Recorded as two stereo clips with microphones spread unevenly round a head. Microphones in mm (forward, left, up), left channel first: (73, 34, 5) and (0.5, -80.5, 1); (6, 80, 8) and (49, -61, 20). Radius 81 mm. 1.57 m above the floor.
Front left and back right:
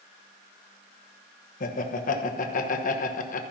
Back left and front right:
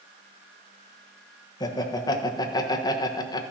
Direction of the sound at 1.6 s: 40° left.